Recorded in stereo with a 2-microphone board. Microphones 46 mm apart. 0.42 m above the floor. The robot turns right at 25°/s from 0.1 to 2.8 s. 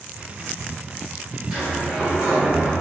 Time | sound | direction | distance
1.5 | a sliding door | 15° right (ahead or behind) | 1.3 m